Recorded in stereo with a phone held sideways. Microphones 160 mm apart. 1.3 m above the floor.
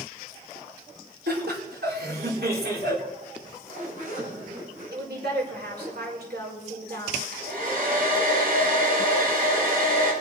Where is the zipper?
55° right (ahead or behind), 7.5 m.